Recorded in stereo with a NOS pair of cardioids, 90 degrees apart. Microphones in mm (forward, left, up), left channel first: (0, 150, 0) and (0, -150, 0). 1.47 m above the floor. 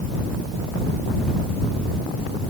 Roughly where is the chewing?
No chewing in this recording.